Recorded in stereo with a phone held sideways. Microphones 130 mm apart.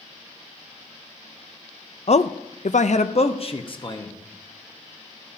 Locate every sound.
2.1 s a man speaking: 50° left (ahead or behind), 0.6 m; by 4.2 s 35° left (ahead or behind), 1.4 m